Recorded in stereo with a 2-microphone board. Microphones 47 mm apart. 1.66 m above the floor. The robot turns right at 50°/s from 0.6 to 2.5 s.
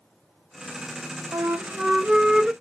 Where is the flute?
70° right, 0.6 m; by 2.5 s 10° right, 0.6 m.